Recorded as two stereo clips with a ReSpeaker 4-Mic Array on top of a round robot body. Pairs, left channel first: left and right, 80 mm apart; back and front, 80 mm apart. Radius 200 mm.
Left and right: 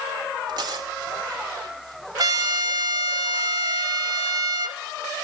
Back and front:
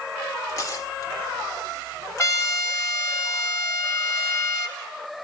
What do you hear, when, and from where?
0.5 s tearing paper: 130° right, 0.8 m
2.2 s a trumpet: 130° right, 1.7 m